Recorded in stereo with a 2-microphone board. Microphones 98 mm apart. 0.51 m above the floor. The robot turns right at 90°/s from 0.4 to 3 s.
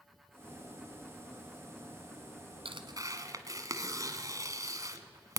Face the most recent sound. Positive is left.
turn(degrees=-35)  # may be behind; listen again after turning